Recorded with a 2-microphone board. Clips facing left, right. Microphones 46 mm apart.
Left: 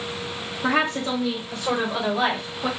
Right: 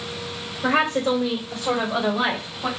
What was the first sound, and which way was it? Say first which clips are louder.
A woman speaking: right 2 dB; 35° right (ahead or behind).